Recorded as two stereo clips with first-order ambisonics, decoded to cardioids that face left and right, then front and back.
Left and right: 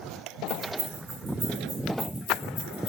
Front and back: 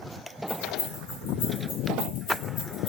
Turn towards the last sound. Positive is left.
turn(degrees=50)